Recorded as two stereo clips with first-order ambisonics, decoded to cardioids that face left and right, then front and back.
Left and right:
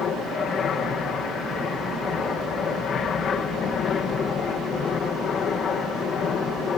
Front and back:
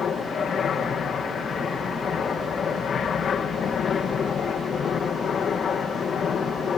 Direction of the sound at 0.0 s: 45° left.